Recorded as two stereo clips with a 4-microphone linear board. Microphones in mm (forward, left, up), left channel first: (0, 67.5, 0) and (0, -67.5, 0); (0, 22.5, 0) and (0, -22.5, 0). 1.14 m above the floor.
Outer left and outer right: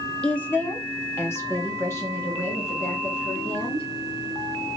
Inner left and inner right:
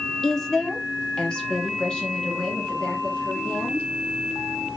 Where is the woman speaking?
10° left (ahead or behind), 0.5 m; by 3.9 s 20° left (ahead or behind), 2.5 m.